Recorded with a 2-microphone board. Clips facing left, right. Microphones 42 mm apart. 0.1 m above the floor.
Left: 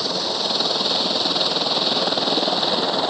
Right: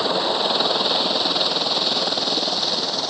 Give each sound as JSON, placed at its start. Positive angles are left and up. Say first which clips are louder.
{"t": 0.0, "sound": "a helicopter", "louder": "right 4 dB", "side_deg": -25}